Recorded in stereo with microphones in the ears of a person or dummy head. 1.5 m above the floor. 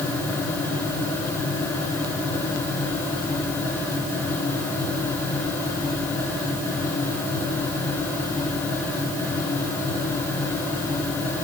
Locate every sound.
Only background noise.